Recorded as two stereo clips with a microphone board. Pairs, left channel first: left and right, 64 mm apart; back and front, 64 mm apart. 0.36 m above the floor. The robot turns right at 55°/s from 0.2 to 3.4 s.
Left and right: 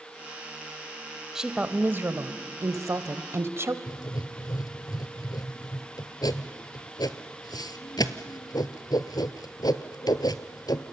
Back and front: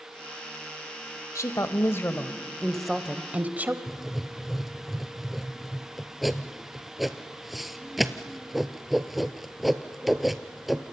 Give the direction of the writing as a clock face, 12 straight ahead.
9 o'clock.